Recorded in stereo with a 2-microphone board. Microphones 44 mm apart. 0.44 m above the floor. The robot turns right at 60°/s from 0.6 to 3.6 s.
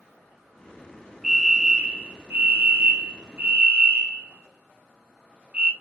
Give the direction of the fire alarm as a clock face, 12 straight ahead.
6 o'clock.